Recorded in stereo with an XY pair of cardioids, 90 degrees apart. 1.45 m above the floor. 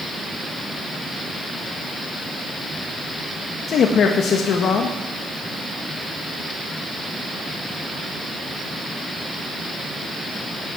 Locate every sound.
3.7 s a man speaking: 65° left, 1.6 m